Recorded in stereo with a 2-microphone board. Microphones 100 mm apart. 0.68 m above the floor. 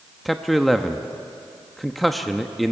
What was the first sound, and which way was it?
A man speaking, centre (ahead or behind).